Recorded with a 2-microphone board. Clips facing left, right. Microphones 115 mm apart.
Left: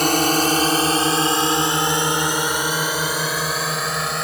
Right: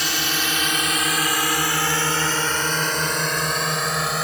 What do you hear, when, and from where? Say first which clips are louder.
0.0 s a drone: left 9 dB; 45° left (ahead or behind); by 4.2 s centre (ahead or behind)